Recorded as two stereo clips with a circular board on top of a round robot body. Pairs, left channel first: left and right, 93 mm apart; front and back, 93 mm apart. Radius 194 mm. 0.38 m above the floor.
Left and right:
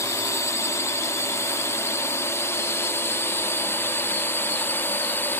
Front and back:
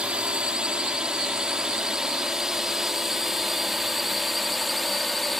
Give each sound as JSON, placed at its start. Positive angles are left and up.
{"t": 0.0, "sound": "a drone", "azimuth_deg": 110}